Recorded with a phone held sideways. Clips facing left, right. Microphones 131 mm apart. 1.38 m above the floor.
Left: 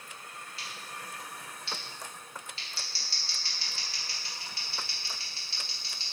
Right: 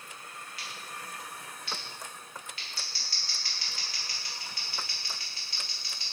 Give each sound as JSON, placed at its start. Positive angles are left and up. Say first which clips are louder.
{"t": 0.6, "sound": "scissors", "louder": "even", "side_deg": 30, "distance_m": 1.2}